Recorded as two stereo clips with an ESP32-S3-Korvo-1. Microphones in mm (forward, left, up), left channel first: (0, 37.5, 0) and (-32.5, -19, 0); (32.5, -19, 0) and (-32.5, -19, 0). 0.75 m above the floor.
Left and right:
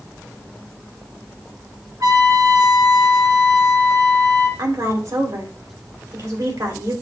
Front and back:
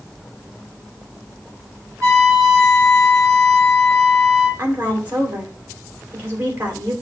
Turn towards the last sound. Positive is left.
turn(degrees=-120)